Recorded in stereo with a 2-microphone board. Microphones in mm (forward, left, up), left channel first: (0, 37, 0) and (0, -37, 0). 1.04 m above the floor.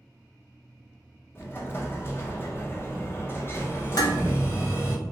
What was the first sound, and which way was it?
An explosion, 30° left (ahead or behind).